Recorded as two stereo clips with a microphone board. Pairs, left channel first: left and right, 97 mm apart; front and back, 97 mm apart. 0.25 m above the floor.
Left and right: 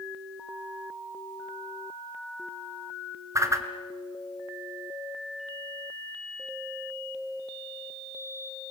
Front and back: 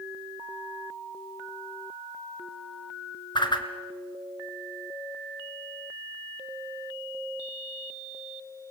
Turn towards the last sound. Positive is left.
turn(degrees=-35)